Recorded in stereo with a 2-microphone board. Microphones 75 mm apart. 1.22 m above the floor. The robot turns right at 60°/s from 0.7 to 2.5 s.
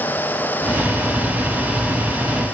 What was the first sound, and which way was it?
Only background noise.